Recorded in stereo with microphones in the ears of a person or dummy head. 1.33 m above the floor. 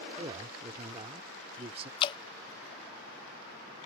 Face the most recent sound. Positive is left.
turn(degrees=30)  # may be behind; listen again after turning